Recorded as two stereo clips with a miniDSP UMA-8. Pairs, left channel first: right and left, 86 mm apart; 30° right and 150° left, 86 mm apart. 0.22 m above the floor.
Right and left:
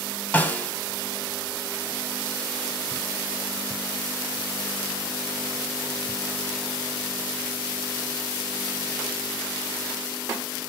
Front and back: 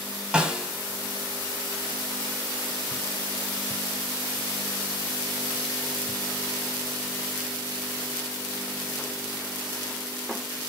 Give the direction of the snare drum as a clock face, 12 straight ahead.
5 o'clock.